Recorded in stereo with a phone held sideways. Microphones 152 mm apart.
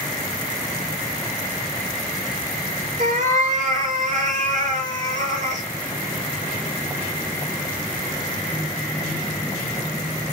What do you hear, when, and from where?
3.0 s a cat meowing: 55° right (ahead or behind), 1.3 m